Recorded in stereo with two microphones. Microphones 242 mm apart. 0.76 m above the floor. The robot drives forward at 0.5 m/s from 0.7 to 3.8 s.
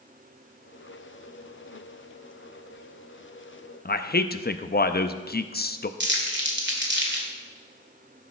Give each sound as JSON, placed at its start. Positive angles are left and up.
{"t": 3.9, "sound": "a man speaking", "side_deg": 40, "distance_m": 0.6}
{"t": 6.0, "sound": "crumpling", "side_deg": -45, "distance_m": 2.0}